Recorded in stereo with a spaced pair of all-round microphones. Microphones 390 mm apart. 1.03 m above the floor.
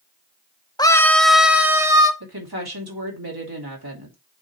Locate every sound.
0.8 s a scream: 10° left (ahead or behind), 0.9 m; by 2.1 s 10° right (ahead or behind), 1.6 m
2.2 s a woman speaking: 70° right (ahead or behind), 2.5 m